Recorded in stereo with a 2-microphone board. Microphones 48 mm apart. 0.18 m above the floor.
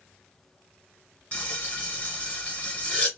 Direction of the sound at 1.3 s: 25° left (ahead or behind).